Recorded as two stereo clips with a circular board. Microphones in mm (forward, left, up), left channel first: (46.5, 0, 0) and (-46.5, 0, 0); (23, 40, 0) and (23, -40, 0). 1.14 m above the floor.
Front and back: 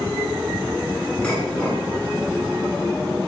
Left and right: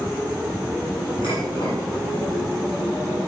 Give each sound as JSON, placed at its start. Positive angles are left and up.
{"t": 1.2, "sound": "dishes clattering", "azimuth_deg": 80, "distance_m": 8.0}